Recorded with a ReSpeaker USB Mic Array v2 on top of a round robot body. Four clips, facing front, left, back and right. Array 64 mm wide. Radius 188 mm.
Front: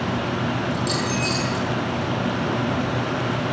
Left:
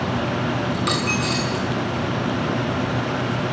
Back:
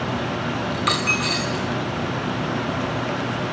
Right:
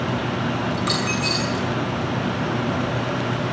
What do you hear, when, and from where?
0.7 s a dropped coin: 175° left, 4 m